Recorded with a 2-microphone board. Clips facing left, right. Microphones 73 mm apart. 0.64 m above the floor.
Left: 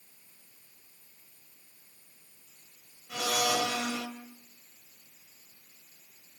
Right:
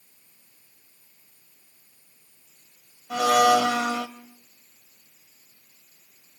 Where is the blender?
75° right (ahead or behind), 1.3 m.